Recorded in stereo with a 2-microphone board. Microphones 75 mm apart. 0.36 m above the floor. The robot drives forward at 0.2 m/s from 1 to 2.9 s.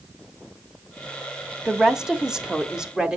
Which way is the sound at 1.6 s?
10° right (ahead or behind).